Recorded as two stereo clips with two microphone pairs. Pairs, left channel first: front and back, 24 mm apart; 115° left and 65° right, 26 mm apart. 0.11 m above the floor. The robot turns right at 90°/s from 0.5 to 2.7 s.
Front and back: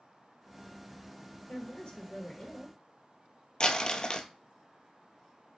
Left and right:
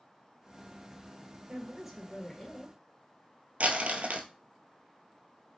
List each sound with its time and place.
1.5 s a woman speaking: 15° right, 1.9 m; by 2.8 s 95° left, 1.9 m
3.6 s crumpling: 50° right, 0.7 m